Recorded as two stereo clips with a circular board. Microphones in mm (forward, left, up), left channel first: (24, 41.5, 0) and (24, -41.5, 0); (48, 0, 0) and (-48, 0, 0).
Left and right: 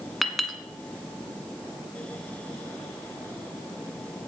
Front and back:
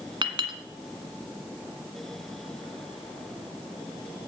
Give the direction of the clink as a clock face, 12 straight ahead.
6 o'clock.